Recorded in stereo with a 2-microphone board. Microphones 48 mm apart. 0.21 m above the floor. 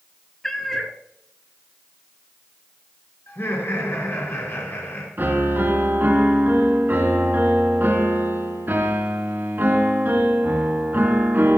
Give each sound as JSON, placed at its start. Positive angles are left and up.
{"t": 0.4, "sound": "a cat meowing", "side_deg": 10, "distance_m": 1.1}
{"t": 3.3, "sound": "laughter", "side_deg": 55, "distance_m": 3.5}
{"t": 5.2, "sound": "a piano", "side_deg": -45, "distance_m": 2.5}